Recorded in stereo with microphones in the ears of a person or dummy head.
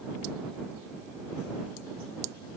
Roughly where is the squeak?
I don't hear a squeak.